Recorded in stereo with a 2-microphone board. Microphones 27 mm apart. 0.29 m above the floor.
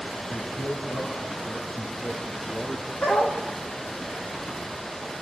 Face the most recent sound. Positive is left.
turn(degrees=65)  # may be behind; listen again after turning